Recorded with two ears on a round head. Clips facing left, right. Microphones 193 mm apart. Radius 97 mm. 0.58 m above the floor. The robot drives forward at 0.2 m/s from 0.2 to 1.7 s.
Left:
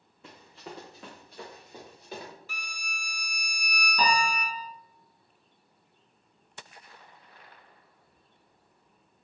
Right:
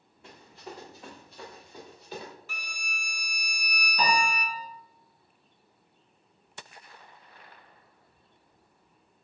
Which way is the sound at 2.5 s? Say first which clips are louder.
Right 1 dB; 45° right (ahead or behind).